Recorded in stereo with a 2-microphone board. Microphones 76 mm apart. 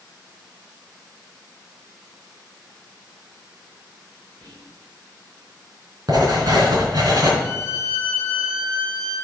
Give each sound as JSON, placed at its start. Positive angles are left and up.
{"t": 4.4, "sound": "whispering", "side_deg": -70, "distance_m": 3.0}
{"t": 6.1, "sound": "writing", "side_deg": -60, "distance_m": 4.0}
{"t": 7.4, "sound": "a violin", "side_deg": -70, "distance_m": 2.5}